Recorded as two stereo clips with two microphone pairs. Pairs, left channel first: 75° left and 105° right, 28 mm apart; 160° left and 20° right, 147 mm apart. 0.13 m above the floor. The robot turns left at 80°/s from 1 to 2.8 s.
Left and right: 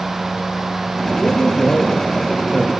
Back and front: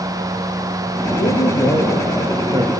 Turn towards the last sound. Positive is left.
turn(degrees=15)